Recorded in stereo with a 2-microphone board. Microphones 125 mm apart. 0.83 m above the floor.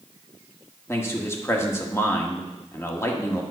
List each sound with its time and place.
0.9 s a man speaking: 20° left (ahead or behind), 1.4 m